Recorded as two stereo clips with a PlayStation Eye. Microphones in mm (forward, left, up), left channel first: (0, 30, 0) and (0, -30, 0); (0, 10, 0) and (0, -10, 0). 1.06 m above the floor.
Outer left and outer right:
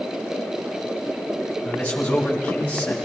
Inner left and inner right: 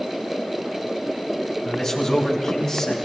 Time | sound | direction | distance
1.6 | a man speaking | 25° left (ahead or behind) | 5 m